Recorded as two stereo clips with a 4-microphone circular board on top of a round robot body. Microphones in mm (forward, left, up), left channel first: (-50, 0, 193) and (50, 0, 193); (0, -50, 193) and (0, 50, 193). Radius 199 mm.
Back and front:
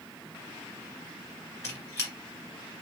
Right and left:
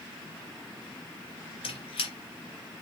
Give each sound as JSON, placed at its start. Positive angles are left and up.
{"t": 1.6, "sound": "a squeak", "azimuth_deg": -115, "distance_m": 1.9}